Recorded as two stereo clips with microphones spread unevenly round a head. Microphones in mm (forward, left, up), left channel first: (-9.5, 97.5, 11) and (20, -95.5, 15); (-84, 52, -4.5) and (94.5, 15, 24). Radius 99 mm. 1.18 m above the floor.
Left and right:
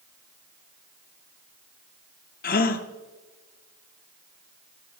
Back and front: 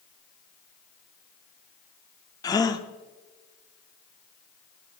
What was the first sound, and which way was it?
A gasp, 95° left.